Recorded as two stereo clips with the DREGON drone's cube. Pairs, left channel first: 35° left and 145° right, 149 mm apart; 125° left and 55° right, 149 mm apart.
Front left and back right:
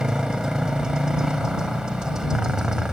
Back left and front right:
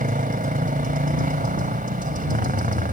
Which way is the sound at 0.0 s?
60° right.